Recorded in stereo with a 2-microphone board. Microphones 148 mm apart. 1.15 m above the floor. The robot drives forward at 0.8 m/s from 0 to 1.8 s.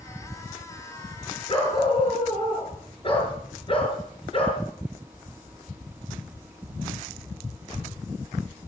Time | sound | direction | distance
1.5 | a dog barking | 35° left (ahead or behind) | 6 m